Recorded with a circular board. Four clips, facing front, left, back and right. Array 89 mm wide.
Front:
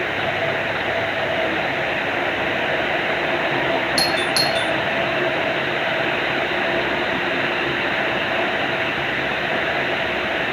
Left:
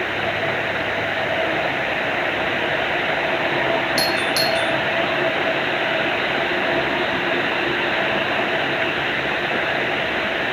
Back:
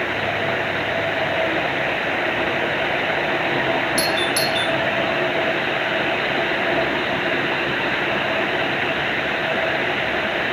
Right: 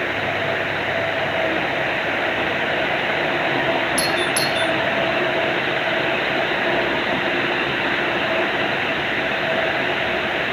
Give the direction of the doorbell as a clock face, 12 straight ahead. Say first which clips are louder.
Even, even; 11 o'clock.